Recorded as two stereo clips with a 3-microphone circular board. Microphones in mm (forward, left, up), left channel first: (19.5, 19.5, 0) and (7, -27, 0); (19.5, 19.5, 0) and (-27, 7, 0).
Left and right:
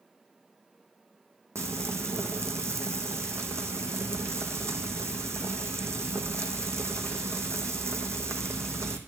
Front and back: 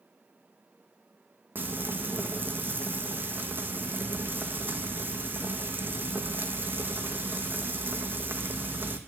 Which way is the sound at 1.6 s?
120° right.